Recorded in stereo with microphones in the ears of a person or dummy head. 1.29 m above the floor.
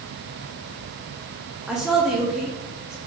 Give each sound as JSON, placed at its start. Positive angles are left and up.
{"t": 1.7, "sound": "a woman speaking", "side_deg": -5, "distance_m": 0.6}